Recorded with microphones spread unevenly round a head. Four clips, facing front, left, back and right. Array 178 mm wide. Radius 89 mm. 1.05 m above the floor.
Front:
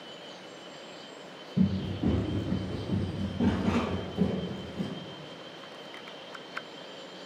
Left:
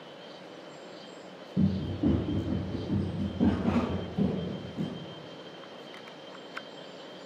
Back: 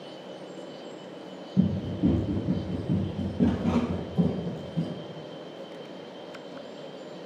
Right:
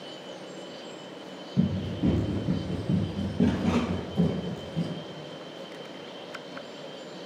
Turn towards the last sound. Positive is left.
turn(degrees=-100)